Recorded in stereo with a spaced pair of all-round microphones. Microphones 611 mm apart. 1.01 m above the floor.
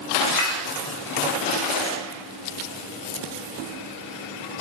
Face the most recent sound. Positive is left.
turn(degrees=35)  # may be behind; listen again after turning